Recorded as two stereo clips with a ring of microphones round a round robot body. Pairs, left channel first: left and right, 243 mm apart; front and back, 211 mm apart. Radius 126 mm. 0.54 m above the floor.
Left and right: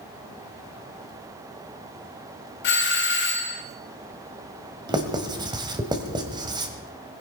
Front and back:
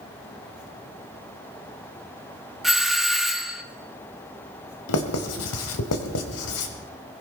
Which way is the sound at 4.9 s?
15° right.